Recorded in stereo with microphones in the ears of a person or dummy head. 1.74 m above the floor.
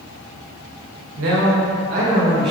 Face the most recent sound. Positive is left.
turn(degrees=-30)  # may be behind; listen again after turning